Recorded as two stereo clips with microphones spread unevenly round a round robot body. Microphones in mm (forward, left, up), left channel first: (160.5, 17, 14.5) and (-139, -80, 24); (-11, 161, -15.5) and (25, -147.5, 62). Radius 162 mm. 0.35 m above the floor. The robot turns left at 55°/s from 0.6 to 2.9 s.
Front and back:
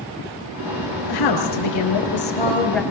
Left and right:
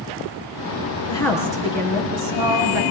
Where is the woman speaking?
25° left, 5.5 m; by 2.8 s 70° right, 5.5 m.